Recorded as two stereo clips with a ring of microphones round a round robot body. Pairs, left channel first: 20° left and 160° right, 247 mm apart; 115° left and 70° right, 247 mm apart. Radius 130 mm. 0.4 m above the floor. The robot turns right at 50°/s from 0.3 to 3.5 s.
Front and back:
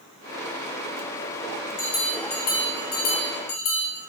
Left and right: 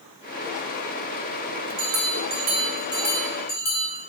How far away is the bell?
About 1.1 m.